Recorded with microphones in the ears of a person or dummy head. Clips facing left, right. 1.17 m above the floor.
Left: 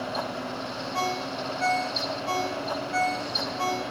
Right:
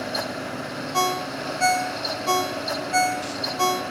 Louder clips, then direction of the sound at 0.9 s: Right 5 dB; 55° right (ahead or behind).